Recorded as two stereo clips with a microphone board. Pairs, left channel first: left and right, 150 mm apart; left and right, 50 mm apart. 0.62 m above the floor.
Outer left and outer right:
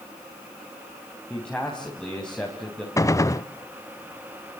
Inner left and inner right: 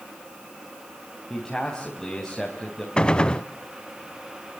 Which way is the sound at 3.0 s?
20° left (ahead or behind).